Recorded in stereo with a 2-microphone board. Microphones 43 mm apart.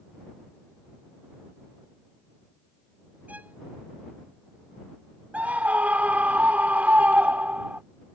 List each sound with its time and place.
3.3 s a violin: 35° right (ahead or behind)
5.3 s a scream: 40° right (ahead or behind)